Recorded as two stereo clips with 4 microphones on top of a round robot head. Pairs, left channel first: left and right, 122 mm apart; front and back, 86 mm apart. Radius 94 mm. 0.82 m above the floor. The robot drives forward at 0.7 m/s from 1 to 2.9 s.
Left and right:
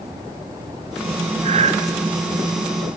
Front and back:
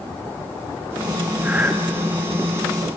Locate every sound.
1.4 s breathing: 105° right, 1.6 m; by 1.8 s 115° right, 1.7 m